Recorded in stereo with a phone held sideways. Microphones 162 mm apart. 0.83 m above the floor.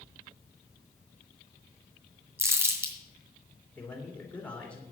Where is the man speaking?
10° left (ahead or behind), 3 m.